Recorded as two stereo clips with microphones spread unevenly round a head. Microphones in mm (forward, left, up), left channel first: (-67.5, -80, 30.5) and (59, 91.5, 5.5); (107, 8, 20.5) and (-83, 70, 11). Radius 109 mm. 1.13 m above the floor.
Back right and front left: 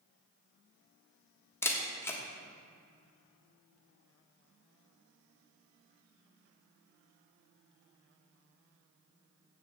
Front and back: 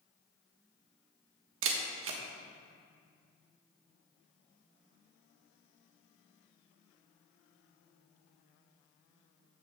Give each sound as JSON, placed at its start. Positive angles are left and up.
{"t": 1.6, "sound": "a camera shutter", "azimuth_deg": 155, "distance_m": 1.4}